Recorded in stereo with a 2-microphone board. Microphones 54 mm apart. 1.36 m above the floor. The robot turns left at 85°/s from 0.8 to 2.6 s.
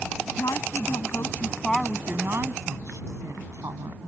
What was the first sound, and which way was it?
A woman speaking, 85° left.